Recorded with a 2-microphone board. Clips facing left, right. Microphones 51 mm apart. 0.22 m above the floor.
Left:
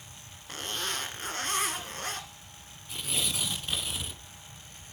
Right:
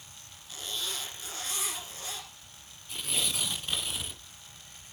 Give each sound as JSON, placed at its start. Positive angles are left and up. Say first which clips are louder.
{"t": 0.5, "sound": "a zipper", "louder": "left 3 dB", "side_deg": 55, "distance_m": 2.0}
{"t": 2.9, "sound": "tearing paper", "louder": "even", "side_deg": 0, "distance_m": 0.9}